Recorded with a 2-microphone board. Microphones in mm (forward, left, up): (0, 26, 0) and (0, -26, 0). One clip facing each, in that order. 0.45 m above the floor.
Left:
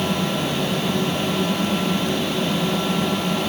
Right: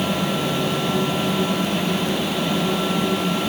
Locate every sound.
Only background noise.